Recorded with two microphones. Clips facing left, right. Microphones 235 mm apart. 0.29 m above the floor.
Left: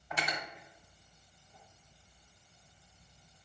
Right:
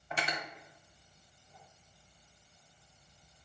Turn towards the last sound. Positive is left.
turn(degrees=-25)  # may be behind; listen again after turning